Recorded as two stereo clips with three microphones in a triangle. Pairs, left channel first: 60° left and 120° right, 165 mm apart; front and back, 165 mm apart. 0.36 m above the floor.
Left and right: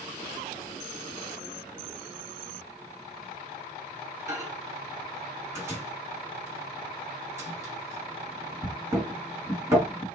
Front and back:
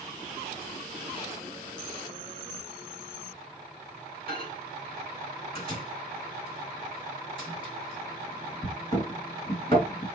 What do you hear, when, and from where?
4.3 s a microwave: 50° right, 1.6 m